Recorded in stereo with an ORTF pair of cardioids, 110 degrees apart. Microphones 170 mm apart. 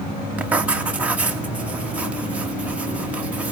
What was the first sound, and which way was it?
Writing, 10° right.